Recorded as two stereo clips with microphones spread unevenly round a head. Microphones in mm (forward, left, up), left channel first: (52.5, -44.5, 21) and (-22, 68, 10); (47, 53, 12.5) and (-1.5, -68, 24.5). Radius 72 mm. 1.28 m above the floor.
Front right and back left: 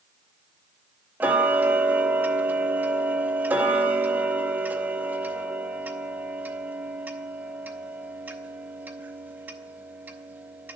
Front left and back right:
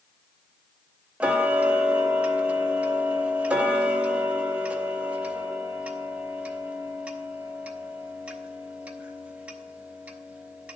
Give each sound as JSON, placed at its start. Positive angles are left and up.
{"t": 1.2, "sound": "ticking", "azimuth_deg": -160, "distance_m": 0.7}